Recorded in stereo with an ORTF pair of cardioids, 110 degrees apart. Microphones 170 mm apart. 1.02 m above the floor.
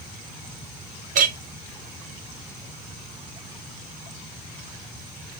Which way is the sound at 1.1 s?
55° right.